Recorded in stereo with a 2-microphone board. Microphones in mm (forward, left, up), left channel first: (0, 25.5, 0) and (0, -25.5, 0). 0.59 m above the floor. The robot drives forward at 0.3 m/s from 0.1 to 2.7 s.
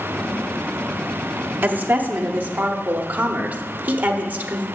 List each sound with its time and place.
1.6 s a woman speaking: 40° right (ahead or behind), 1.0 m; by 4.7 s 35° right (ahead or behind), 1.1 m